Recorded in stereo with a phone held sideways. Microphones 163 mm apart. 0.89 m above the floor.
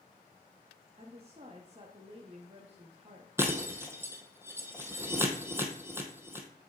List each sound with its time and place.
1.0 s a woman speaking: 40° right (ahead or behind), 1.3 m
3.4 s breaking glass: 15° right (ahead or behind), 1.7 m